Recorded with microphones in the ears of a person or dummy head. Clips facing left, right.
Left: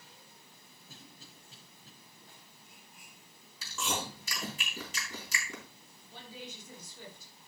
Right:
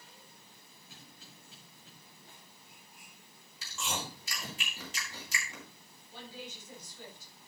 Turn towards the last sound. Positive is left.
turn(degrees=80)